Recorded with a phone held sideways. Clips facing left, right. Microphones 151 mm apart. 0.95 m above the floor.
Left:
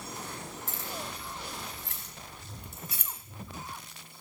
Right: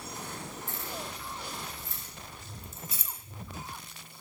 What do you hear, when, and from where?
0.7 s keys jangling: 90° left, 5.5 m; by 3.1 s 65° left (ahead or behind), 4 m